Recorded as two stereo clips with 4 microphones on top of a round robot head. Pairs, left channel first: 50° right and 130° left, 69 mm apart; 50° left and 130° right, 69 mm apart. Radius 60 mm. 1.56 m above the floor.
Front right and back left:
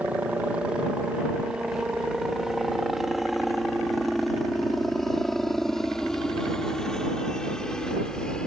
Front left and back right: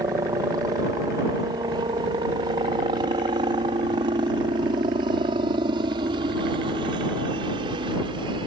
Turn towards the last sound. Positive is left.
turn(degrees=-130)